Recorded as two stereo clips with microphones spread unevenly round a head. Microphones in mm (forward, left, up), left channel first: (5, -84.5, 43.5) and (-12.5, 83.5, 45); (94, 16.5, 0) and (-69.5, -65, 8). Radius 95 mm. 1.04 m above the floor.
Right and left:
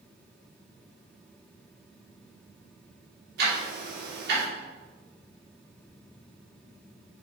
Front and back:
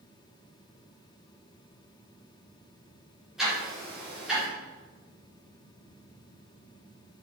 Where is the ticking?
120° left, 3.5 m.